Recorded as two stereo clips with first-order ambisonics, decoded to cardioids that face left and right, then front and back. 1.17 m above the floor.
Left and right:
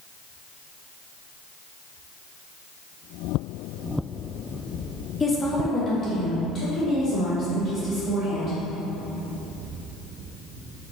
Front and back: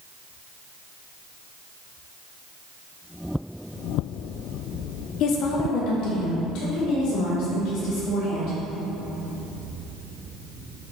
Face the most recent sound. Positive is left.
turn(degrees=25)